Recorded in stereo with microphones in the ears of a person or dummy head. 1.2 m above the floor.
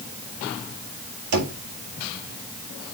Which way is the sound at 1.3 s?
60° right (ahead or behind).